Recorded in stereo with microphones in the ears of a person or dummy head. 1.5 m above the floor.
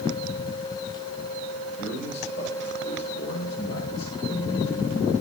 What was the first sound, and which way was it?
A man speaking, 65° left (ahead or behind).